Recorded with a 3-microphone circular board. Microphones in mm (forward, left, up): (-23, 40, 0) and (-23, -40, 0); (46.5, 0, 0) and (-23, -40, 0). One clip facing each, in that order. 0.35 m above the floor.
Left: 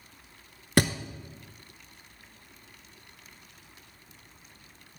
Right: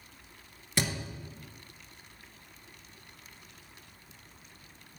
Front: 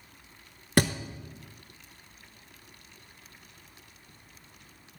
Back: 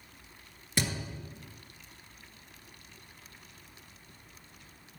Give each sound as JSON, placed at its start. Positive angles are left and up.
{"t": 0.8, "sound": "a thud", "azimuth_deg": 60, "distance_m": 0.6}